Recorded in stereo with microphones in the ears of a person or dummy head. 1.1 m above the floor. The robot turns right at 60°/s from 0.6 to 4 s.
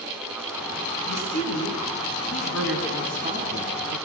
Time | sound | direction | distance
1.1 | a woman speaking | 75° left | 7.5 m